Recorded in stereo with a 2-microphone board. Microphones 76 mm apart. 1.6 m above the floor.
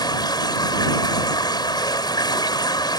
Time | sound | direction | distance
0.0 | running water | 70° left (ahead or behind) | ?